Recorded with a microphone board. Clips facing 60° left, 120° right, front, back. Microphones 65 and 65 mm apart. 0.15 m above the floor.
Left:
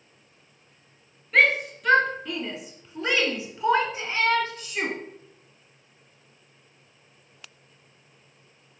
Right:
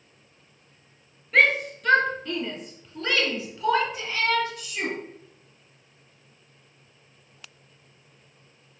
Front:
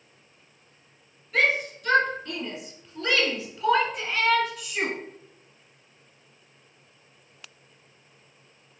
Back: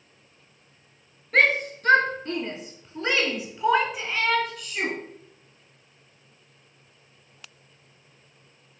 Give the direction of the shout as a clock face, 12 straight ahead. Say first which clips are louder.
Even, back 3 dB; 7 o'clock.